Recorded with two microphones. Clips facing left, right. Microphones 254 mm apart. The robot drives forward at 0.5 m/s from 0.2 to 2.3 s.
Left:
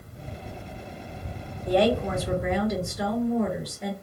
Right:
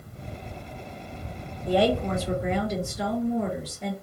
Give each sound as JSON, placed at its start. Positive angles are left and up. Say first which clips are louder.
{"t": 1.7, "sound": "a woman speaking", "louder": "left 1 dB", "side_deg": -5, "distance_m": 2.0}